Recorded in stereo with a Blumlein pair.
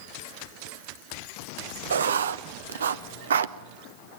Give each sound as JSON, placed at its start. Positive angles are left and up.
{"t": 1.9, "sound": "writing", "azimuth_deg": -65, "distance_m": 0.9}